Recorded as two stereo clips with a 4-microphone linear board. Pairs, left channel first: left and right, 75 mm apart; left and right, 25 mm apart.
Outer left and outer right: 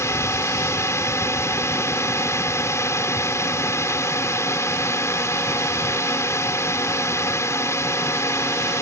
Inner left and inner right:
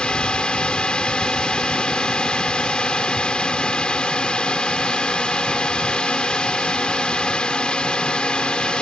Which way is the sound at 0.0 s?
40° left (ahead or behind).